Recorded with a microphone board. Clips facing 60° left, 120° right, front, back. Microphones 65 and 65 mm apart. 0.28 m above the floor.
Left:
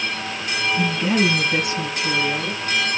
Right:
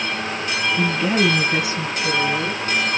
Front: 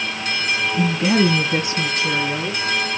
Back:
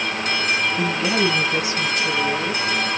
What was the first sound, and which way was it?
A woman speaking, 50° right.